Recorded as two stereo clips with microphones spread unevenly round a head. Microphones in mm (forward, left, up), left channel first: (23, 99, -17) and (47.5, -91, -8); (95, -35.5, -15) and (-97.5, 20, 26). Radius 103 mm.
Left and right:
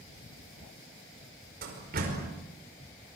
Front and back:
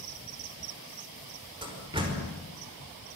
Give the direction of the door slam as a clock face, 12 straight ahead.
4 o'clock.